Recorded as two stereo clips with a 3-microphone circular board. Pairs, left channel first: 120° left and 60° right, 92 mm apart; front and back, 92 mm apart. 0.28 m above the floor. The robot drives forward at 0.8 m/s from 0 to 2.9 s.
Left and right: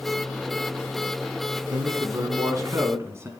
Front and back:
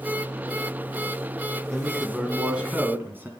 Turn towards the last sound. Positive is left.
turn(degrees=-115)